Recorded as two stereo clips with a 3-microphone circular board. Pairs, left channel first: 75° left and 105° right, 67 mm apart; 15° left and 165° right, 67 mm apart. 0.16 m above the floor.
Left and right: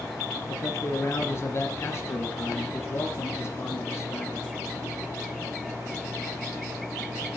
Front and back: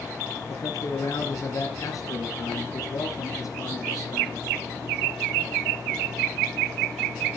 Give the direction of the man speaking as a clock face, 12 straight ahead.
11 o'clock.